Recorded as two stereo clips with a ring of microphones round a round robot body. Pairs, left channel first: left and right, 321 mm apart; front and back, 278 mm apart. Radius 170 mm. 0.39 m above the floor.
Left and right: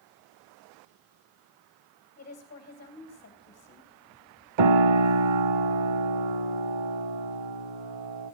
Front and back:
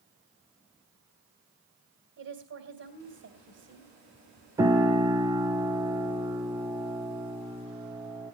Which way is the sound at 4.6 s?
100° right.